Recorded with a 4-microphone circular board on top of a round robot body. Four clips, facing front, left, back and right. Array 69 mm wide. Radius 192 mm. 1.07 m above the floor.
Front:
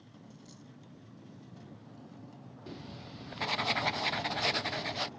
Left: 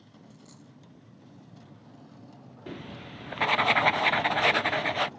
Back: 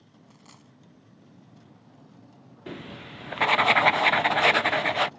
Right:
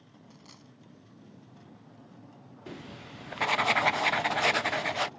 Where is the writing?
170° left.